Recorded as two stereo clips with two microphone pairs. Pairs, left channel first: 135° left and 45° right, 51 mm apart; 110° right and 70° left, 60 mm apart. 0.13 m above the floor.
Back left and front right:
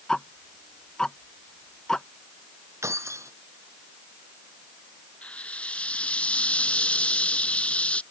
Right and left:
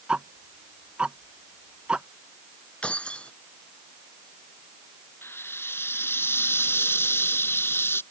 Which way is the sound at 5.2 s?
160° right.